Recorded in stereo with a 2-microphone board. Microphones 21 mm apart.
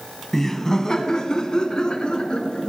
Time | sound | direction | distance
0.3 | laughter | 15° left (ahead or behind) | 1.0 m